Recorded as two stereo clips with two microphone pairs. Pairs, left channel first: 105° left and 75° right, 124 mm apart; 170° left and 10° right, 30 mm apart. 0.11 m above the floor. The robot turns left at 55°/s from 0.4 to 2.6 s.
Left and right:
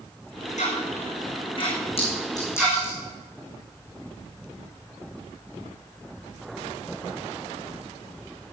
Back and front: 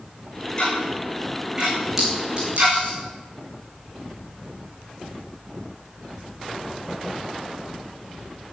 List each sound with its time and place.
0.6 s ticking: 110° left, 6.5 m; by 2.8 s straight ahead, 6.5 m
2.0 s a clink: 65° left, 5 m; by 3.0 s 30° left, 5 m